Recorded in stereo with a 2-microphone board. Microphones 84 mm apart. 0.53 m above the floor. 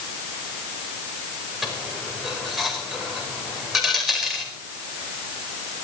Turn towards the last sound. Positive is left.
turn(degrees=-5)  # may be behind; listen again after turning